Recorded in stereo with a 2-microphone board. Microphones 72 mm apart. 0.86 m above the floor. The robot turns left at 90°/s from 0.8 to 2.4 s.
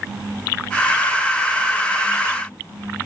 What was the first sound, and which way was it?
Only background noise.